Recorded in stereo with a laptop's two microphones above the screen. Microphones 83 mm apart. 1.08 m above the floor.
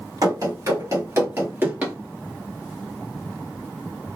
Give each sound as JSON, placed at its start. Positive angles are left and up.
{"t": 0.2, "sound": "running footsteps", "side_deg": -50, "distance_m": 1.6}